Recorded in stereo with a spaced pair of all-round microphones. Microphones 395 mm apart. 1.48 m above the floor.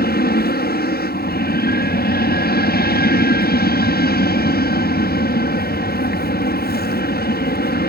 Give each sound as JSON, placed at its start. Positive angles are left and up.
{"t": 0.0, "sound": "an aircraft", "side_deg": 25}